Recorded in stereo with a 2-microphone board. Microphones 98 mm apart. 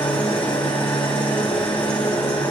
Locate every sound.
0.0 s an engine running: 70° left (ahead or behind), 5 m